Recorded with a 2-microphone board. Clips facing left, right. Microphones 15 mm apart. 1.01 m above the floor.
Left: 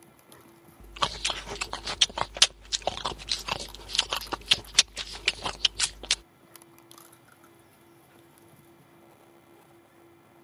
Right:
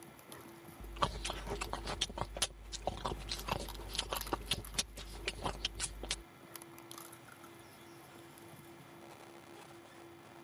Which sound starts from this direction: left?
Chewing, at 0.8 s.